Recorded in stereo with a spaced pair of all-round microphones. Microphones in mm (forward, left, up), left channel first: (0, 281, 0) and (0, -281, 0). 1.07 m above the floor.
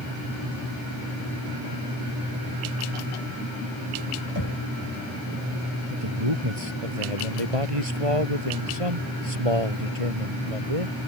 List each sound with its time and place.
4.3 s knocking: 50° left (ahead or behind)
5.9 s a man speaking: 70° right (ahead or behind)